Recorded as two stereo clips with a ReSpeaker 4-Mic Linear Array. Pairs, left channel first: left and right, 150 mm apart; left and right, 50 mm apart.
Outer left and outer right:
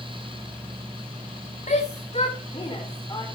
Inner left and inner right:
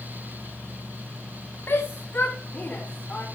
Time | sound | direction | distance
1.7 | a shout | 55° left (ahead or behind) | 2.5 m